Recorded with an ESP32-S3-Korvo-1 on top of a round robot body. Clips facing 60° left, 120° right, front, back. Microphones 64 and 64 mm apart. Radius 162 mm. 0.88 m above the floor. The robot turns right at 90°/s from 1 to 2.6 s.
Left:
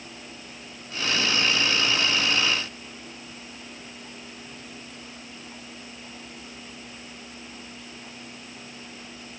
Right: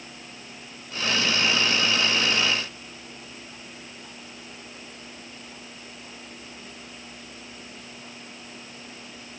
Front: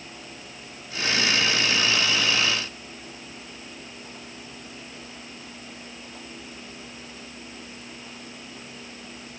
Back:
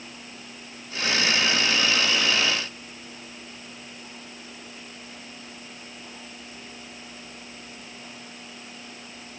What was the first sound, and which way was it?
Only background noise.